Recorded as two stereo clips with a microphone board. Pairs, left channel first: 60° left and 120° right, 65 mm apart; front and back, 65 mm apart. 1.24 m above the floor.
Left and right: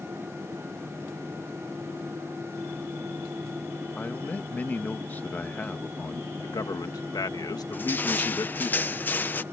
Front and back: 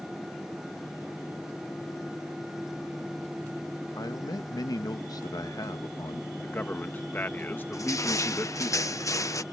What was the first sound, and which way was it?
A man speaking, straight ahead.